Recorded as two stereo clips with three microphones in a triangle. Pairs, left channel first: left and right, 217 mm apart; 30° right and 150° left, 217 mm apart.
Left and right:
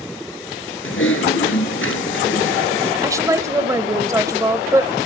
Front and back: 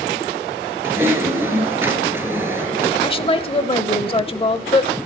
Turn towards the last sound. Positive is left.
turn(degrees=-35)